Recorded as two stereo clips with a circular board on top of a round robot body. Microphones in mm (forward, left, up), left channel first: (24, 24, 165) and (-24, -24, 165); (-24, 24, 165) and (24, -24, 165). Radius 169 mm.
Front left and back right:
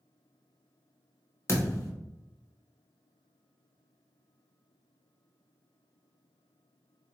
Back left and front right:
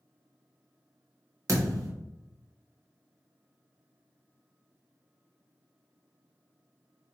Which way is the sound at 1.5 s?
5° right.